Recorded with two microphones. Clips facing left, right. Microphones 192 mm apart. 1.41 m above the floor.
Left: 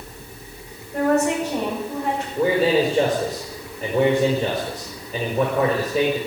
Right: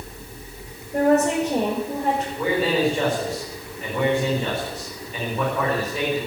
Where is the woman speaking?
30° right (ahead or behind), 7 m.